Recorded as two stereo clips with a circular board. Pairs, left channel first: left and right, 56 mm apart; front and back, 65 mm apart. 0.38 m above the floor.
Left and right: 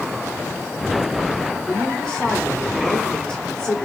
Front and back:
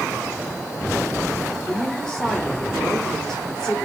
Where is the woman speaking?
55° left, 1.4 m.